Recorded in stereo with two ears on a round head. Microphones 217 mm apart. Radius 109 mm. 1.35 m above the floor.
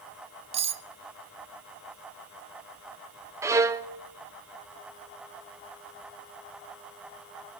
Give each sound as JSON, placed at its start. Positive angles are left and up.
{"t": 0.5, "sound": "cutlery clinking", "side_deg": -30, "distance_m": 0.8}
{"t": 3.4, "sound": "a violin", "side_deg": -15, "distance_m": 0.7}